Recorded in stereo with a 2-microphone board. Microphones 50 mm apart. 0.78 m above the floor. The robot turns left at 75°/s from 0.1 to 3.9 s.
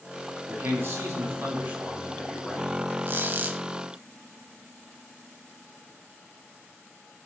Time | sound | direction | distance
0.5 | a man speaking | 45° right | 1.9 m
3.1 | a squeak | 90° right | 0.7 m